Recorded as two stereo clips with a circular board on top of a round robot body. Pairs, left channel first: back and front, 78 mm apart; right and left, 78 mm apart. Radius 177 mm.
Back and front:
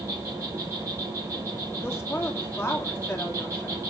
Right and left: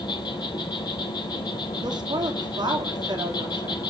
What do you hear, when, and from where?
0.0 s an insect: 55° right, 5 m
1.8 s a woman speaking: 120° left, 3 m